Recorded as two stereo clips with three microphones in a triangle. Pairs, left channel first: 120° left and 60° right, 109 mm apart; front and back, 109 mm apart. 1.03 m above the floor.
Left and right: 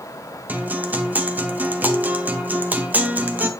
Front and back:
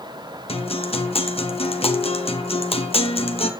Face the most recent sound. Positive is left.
turn(degrees=15)